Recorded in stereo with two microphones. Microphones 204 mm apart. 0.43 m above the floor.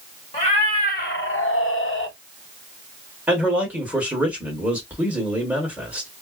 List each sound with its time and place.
0.3 s a cat meowing: 30° left (ahead or behind), 1.2 m; by 2.1 s 60° left (ahead or behind), 0.7 m
3.3 s a man speaking: 10° right (ahead or behind), 1.3 m